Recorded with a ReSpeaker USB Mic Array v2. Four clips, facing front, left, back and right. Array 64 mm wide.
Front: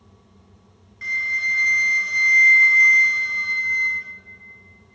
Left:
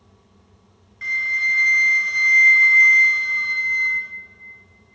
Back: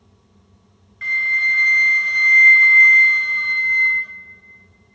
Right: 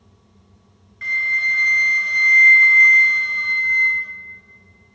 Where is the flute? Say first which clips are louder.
Right 2 dB, back 5 dB; 165° right, 0.6 m.